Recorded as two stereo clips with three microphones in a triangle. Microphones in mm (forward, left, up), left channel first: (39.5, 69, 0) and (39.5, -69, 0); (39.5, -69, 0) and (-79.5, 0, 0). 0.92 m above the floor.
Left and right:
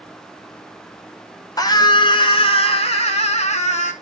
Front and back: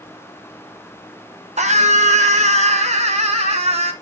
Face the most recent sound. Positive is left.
turn(degrees=115)